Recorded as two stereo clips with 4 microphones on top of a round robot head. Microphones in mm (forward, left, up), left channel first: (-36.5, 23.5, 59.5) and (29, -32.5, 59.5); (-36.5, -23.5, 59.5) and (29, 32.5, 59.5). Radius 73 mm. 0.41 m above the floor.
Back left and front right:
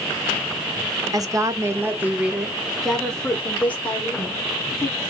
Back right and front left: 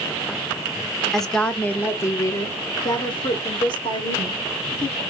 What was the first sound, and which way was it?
A woman speaking, 55° right.